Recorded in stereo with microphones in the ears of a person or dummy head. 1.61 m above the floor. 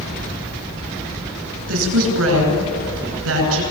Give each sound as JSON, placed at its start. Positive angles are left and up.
{"t": 1.7, "sound": "a woman speaking", "side_deg": -85, "distance_m": 10.0}